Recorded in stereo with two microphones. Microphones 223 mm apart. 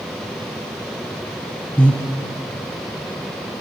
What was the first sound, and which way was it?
Breathing, 5° left (ahead or behind).